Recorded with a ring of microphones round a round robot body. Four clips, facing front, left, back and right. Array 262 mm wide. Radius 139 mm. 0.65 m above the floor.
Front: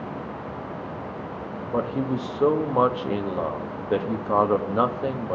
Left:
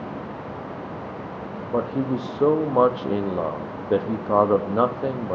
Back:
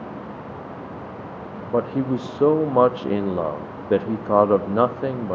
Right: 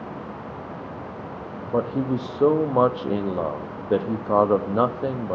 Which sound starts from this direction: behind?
A man speaking, at 1.6 s.